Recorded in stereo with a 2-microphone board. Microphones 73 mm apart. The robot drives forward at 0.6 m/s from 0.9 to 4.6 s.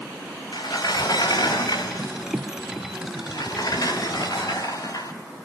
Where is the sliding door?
70° left (ahead or behind), 4.5 m; by 5.1 s 50° left (ahead or behind), 5.5 m.